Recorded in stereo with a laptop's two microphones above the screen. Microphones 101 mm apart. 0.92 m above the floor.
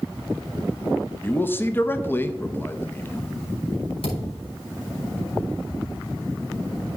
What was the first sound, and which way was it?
A man speaking, 20° left (ahead or behind).